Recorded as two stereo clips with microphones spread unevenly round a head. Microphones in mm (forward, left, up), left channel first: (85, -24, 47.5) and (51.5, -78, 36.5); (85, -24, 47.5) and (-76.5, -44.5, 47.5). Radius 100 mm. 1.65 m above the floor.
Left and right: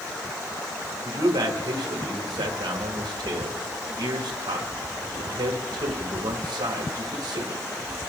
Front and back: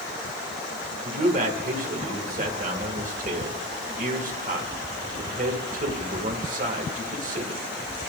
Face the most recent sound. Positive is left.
turn(degrees=-135)